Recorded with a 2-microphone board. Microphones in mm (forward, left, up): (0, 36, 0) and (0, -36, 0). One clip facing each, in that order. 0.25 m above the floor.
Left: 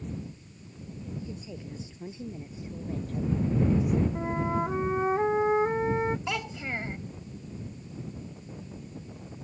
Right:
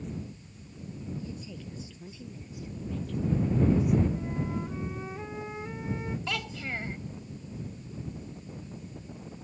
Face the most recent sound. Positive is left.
turn(degrees=15)  # may be behind; listen again after turning